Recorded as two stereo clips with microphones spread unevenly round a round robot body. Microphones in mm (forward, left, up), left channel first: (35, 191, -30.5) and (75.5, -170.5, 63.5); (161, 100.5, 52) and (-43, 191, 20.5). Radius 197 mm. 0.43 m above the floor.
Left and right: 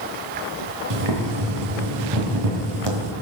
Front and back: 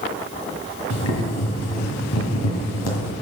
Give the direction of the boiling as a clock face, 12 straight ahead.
1 o'clock.